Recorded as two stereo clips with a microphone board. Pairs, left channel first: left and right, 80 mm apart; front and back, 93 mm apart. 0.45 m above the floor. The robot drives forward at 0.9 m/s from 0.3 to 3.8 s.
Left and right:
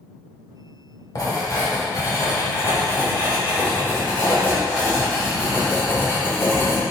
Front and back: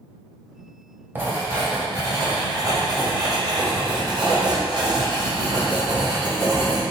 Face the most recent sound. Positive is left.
turn(degrees=150)